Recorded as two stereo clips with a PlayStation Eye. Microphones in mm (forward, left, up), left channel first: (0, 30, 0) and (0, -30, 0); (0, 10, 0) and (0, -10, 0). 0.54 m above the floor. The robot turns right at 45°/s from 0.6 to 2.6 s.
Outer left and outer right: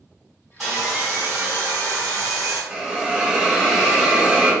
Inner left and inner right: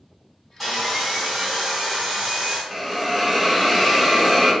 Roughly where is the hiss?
Centre.